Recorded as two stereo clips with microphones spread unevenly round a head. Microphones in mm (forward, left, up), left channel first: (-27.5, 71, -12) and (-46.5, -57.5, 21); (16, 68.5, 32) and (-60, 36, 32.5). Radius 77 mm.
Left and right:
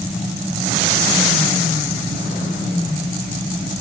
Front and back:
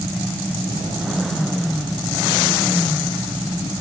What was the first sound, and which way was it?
Only background noise.